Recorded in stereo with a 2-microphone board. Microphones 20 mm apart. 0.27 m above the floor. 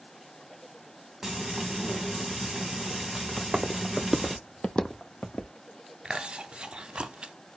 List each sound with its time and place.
1.2 s frying: 20° right (ahead or behind), 1.5 m
3.4 s footsteps: 50° right (ahead or behind), 1.0 m; by 5.5 s 70° left (ahead or behind), 1.1 m
6.0 s chewing: 55° right (ahead or behind), 0.5 m